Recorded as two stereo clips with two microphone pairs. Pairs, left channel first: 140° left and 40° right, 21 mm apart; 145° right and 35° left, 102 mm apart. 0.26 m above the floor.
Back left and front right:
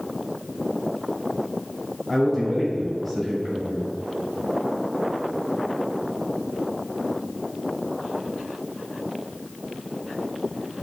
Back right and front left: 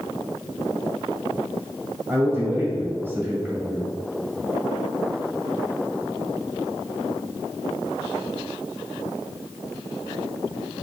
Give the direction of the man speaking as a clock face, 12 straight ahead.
10 o'clock.